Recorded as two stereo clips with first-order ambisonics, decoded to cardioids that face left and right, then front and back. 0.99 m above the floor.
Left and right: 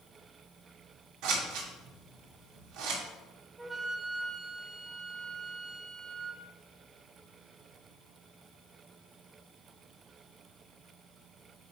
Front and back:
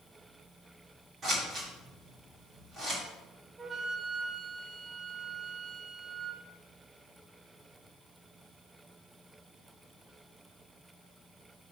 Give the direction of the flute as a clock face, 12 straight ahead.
5 o'clock.